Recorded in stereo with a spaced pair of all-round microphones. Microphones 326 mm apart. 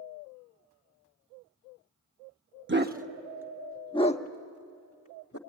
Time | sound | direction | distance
2.7 | a dog barking | 35° right (ahead or behind) | 1.0 m